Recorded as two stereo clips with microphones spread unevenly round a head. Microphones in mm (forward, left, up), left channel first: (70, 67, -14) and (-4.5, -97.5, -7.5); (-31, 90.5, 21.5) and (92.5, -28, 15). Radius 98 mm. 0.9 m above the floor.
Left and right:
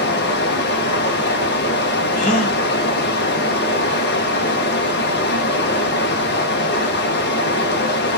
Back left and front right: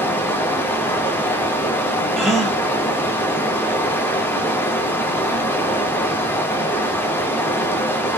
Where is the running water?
60° left, 0.7 m.